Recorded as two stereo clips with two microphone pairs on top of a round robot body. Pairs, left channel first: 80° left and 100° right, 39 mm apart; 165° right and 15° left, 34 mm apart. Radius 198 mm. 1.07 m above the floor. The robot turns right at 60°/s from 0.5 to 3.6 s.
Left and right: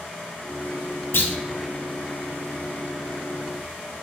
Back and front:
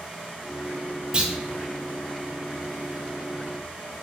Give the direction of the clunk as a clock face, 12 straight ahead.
9 o'clock.